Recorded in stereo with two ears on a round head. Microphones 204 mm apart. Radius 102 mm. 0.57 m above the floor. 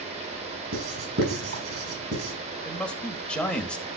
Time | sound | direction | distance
0.7 | writing | 60° right (ahead or behind) | 5.5 m
2.6 | a man speaking | 5° left (ahead or behind) | 2 m